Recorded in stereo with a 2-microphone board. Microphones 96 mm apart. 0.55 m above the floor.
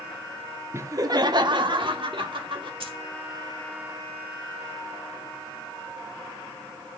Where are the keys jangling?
75° right (ahead or behind), 1.9 m.